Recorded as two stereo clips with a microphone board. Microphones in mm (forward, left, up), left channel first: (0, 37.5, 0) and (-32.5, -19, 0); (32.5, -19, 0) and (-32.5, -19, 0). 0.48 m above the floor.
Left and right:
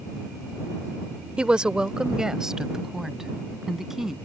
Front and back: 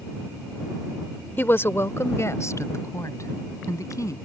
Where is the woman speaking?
50° right; by 4.2 s 35° right.